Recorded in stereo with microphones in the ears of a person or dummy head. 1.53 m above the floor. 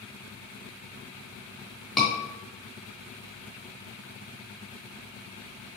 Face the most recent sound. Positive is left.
turn(degrees=5)  # may be behind; listen again after turning